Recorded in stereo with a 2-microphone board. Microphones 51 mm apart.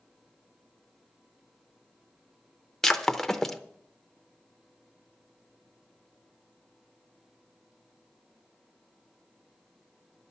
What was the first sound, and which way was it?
Breaking glass, 5° left (ahead or behind).